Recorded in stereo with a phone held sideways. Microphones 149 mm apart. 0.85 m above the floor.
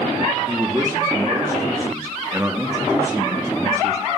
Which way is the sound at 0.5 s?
20° right (ahead or behind).